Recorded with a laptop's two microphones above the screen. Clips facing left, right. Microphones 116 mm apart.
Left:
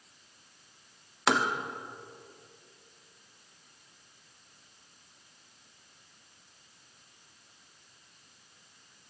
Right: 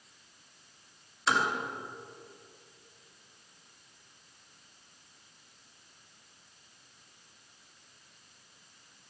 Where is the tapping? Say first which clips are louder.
Left 2 dB; 75° left (ahead or behind), 1.1 m.